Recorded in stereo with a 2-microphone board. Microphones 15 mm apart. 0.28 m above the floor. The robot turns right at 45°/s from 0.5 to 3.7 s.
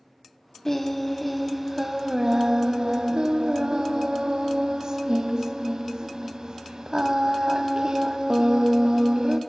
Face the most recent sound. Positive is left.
turn(degrees=-70)